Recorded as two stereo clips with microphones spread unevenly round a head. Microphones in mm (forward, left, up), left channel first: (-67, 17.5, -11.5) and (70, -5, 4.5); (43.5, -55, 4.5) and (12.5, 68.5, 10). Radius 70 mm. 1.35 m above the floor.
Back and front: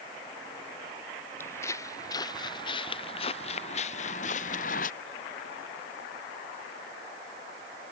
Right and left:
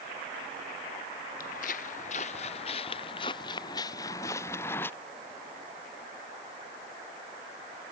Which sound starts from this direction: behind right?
Footsteps, at 1.4 s.